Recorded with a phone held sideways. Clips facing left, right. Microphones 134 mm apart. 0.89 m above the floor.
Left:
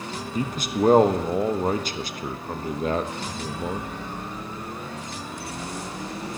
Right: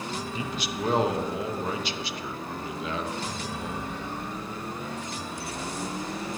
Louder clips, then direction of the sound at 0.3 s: Left 12 dB; 45° left (ahead or behind).